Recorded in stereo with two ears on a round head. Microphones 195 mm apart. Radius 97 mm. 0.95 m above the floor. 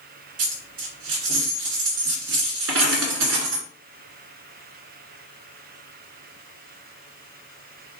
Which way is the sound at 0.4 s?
65° right (ahead or behind).